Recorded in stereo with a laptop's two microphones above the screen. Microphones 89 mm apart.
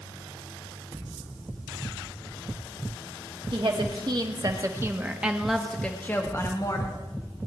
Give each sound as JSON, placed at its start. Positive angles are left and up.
{"t": 3.5, "sound": "a woman speaking", "side_deg": -60, "distance_m": 2.0}